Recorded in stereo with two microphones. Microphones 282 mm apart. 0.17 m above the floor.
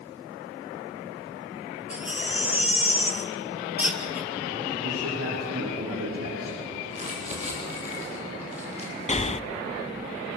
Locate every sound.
1.9 s a baby crying: 5° right (ahead or behind), 2 m
4.8 s a man speaking: 55° right (ahead or behind), 8 m
6.9 s crumpling: 25° right (ahead or behind), 7 m
9.1 s breathing: 25° left (ahead or behind), 0.5 m